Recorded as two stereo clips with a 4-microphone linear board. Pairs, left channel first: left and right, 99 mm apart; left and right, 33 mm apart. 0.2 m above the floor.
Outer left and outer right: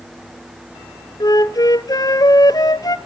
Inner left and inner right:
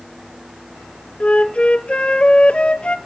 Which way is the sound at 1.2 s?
40° left (ahead or behind).